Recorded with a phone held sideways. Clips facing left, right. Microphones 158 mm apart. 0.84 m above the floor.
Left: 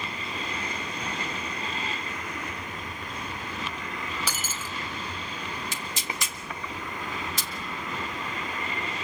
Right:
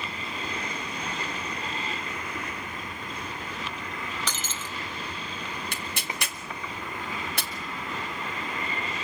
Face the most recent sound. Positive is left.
turn(degrees=-60)  # may be behind; listen again after turning